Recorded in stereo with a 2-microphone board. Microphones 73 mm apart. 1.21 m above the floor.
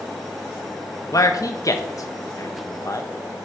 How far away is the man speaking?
About 1.1 m.